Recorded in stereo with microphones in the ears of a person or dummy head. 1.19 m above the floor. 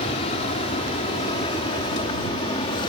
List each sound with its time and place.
0.0 s an aircraft: 35° left (ahead or behind); by 2.9 s 25° left (ahead or behind)